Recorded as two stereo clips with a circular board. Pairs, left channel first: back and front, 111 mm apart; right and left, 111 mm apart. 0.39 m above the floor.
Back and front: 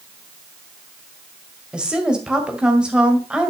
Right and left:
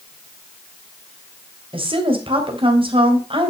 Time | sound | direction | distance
1.7 | a woman speaking | 80° left | 2 m